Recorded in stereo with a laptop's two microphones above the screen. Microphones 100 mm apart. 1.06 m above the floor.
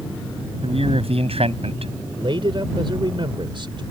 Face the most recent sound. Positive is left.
turn(degrees=-60)  # may be behind; listen again after turning